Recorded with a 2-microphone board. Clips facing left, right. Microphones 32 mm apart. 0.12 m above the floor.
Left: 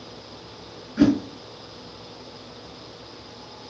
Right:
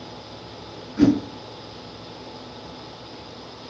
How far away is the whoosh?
About 1.6 m.